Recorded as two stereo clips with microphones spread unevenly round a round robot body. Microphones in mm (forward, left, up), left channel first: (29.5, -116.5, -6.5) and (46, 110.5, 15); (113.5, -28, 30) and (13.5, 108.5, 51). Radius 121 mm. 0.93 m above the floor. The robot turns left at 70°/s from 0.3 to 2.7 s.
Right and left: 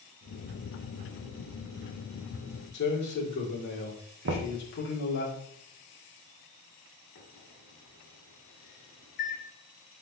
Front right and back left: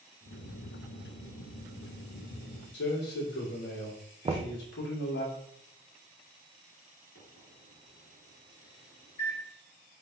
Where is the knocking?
70° left, 0.7 m.